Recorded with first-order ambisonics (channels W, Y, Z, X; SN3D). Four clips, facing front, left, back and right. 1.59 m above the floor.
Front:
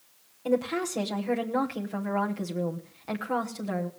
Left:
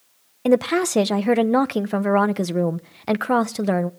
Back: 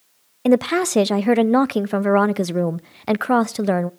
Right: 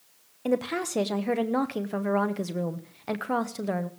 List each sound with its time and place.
0.5 s a woman speaking: 150° left, 0.7 m